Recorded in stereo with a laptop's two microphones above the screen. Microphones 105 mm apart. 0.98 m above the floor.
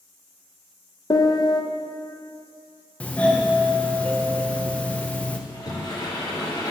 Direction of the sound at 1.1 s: 40° left (ahead or behind).